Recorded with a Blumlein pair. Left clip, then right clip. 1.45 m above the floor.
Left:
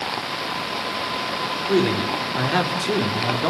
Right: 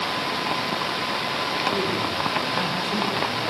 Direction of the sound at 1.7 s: 50° left.